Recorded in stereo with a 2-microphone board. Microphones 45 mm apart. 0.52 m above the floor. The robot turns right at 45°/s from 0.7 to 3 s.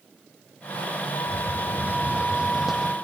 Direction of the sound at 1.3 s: 75° right.